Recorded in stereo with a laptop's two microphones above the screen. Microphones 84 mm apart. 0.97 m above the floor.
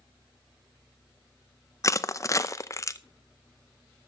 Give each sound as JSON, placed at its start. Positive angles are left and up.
{"t": 1.8, "sound": "crushing", "side_deg": 40, "distance_m": 0.6}